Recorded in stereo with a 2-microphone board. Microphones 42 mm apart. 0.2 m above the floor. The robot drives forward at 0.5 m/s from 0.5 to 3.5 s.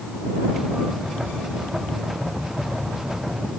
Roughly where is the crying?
No crying in this recording.